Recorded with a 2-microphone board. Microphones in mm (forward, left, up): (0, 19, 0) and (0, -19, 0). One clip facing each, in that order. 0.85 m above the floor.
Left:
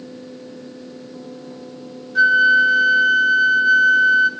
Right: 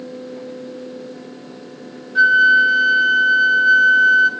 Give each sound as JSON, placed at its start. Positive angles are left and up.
{"t": 2.1, "sound": "a flute", "side_deg": -5, "distance_m": 1.0}